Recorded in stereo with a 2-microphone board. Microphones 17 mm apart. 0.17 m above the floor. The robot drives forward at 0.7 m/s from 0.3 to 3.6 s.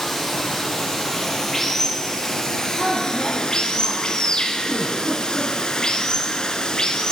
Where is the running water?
15° left (ahead or behind), 3 m; by 7.1 s 50° left (ahead or behind), 1.0 m.